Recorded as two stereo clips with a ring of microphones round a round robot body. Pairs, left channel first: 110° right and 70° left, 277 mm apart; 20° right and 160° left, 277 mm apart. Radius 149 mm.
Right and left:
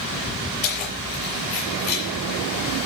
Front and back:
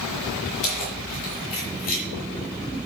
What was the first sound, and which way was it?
Keys jangling, 60° right.